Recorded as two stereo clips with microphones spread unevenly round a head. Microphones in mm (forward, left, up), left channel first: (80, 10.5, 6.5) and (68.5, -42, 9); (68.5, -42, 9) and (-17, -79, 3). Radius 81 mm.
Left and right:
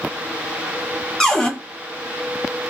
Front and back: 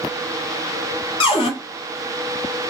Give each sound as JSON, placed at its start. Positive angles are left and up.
{"t": 1.2, "sound": "a cupboard door", "azimuth_deg": -5, "distance_m": 1.1}